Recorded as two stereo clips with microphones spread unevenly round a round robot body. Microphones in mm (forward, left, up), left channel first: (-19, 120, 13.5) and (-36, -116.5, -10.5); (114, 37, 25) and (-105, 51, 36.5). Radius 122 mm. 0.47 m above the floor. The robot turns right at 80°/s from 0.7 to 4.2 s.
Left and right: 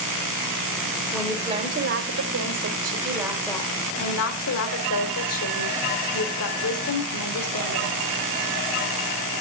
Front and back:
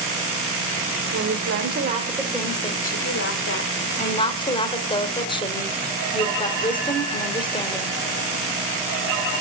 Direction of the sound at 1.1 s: 175° left.